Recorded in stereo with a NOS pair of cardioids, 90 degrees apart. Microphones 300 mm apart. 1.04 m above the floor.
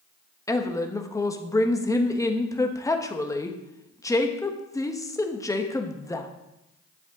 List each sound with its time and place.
0.5 s a woman speaking: 10° left, 1.1 m